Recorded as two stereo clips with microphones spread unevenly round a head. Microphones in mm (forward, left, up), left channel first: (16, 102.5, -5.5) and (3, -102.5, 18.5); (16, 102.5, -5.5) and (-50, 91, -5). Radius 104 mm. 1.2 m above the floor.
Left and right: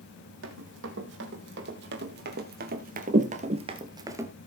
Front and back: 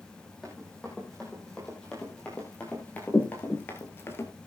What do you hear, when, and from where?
0.4 s running footsteps: 80° right, 3.5 m; by 4.3 s 25° right, 1.5 m